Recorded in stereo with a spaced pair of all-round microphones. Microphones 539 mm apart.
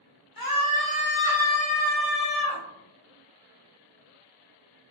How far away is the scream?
About 0.8 m.